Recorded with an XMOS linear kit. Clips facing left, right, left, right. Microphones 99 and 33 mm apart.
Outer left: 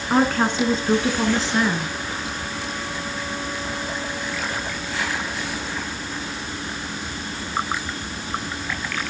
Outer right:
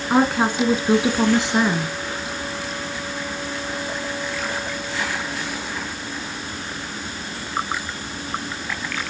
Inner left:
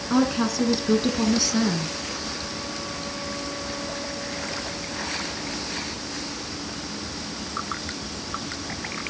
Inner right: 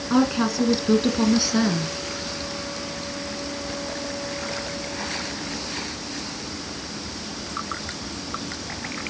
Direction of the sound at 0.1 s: 5° right (ahead or behind).